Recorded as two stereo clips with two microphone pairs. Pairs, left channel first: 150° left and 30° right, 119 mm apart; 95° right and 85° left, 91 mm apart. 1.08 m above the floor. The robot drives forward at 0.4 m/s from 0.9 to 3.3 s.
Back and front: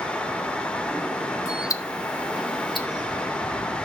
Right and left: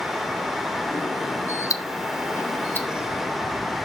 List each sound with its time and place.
1.7 s ticking: 145° right, 0.5 m; by 2.9 s 160° right, 1.0 m